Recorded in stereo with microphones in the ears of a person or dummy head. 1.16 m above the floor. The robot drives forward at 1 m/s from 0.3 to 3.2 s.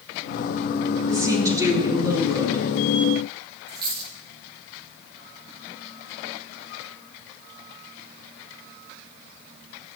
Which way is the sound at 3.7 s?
25° right (ahead or behind).